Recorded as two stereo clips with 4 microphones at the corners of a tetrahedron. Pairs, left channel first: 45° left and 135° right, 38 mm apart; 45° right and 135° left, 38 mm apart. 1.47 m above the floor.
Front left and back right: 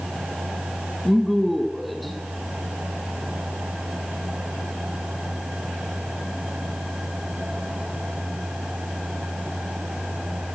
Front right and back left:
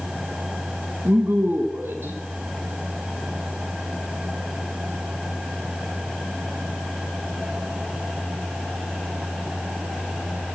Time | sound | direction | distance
1.1 | a woman speaking | 135° left | 1.2 m